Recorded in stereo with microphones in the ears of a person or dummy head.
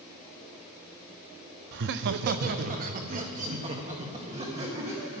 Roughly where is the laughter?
Right.